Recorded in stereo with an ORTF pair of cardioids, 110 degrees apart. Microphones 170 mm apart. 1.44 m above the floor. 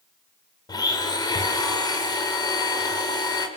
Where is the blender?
25° left, 5.5 m.